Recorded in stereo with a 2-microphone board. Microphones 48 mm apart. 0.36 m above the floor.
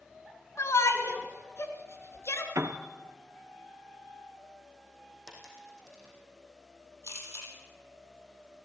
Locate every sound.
0.6 s a shout: 70° left (ahead or behind), 3.5 m; by 2.5 s 65° left (ahead or behind), 4.5 m
2.5 s a piano: 85° right, 1.5 m
5.3 s a dropped coin: 5° left (ahead or behind), 6 m
7.0 s a camera shutter: 70° left (ahead or behind), 9 m